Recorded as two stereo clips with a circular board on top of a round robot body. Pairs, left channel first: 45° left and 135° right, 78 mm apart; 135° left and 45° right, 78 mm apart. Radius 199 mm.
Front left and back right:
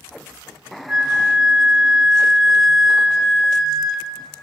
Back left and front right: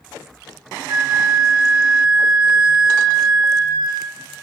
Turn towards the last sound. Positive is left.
turn(degrees=-50)